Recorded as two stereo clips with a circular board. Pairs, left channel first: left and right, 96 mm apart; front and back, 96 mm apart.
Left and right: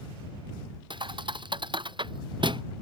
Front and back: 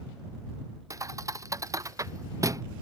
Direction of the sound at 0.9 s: 125° right.